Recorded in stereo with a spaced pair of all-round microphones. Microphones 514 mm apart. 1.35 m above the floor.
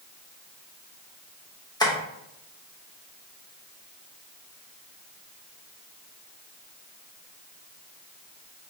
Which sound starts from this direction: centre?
Tapping, at 1.8 s.